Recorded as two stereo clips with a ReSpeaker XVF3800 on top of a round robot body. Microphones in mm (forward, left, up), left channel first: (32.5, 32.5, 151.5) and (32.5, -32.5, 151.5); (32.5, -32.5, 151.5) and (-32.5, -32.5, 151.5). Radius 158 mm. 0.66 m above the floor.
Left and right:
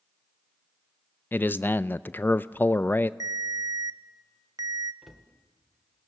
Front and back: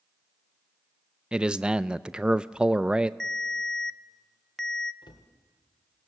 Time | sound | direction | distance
1.3 | a man speaking | 115° left | 0.6 m
3.2 | a ringtone | 80° right | 0.8 m
5.0 | a cupboard door | straight ahead | 1.8 m